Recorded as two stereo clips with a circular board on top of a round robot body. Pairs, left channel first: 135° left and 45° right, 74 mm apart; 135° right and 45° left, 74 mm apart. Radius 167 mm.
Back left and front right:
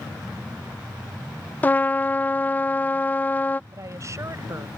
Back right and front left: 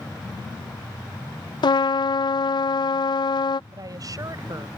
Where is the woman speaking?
5° left.